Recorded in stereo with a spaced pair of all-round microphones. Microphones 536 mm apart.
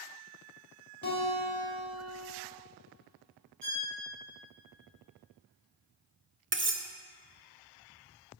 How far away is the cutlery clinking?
About 0.6 m.